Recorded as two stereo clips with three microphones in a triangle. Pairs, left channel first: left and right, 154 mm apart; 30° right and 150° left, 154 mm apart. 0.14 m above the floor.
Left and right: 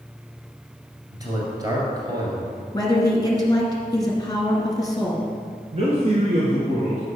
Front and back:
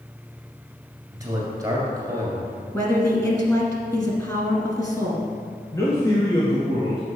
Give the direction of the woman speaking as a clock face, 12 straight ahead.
11 o'clock.